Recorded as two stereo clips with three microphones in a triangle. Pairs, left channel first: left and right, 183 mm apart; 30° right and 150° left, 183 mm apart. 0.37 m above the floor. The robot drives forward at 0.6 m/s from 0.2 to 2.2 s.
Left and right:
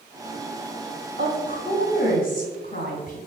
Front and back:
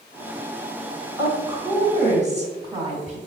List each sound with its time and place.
1.2 s a woman speaking: 90° left, 1.8 m; by 3.2 s 110° left, 1.9 m